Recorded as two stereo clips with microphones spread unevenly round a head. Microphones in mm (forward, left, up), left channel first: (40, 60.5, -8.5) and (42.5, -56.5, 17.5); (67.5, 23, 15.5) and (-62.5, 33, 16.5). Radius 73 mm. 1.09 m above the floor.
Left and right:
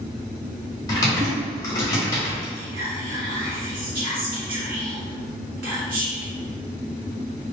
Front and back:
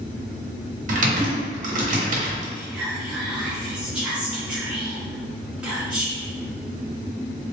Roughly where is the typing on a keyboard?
Behind.